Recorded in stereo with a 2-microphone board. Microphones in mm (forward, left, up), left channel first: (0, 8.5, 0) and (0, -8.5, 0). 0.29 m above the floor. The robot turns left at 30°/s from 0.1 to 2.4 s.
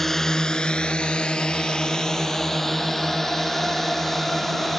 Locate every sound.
0.0 s a drone: 15° left (ahead or behind)